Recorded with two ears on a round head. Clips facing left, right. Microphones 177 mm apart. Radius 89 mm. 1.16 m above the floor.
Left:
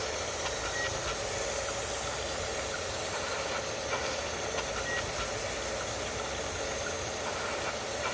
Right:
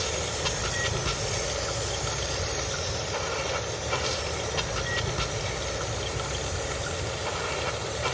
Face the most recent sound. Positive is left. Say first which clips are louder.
# right 4 dB
turn(degrees=-55)  # may be behind; listen again after turning